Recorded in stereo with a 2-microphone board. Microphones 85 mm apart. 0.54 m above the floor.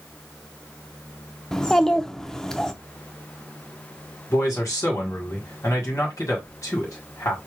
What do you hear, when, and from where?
1.5 s a child speaking: 5° left (ahead or behind), 0.6 m
4.3 s a man speaking: 35° left (ahead or behind), 1.6 m